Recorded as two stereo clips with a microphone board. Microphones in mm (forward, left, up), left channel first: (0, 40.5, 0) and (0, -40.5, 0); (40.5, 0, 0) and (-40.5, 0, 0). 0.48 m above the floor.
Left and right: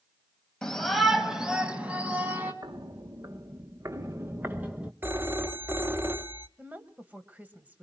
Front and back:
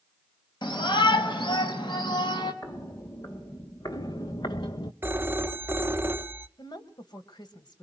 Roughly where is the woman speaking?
Ahead.